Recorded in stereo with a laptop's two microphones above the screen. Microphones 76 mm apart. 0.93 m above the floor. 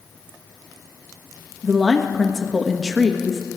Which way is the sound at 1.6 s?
Centre (ahead or behind).